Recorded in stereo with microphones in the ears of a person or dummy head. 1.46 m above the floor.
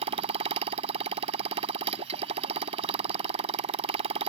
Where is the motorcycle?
35° right (ahead or behind).